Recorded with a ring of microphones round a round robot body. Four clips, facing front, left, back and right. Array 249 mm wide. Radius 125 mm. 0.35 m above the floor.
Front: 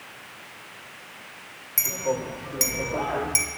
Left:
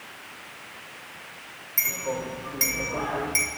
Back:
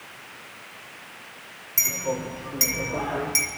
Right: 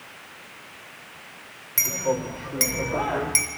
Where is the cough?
I don't hear a cough.